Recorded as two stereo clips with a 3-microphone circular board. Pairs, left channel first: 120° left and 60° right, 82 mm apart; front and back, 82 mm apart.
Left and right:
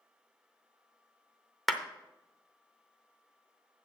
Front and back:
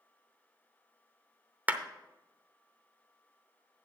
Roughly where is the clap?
Behind right.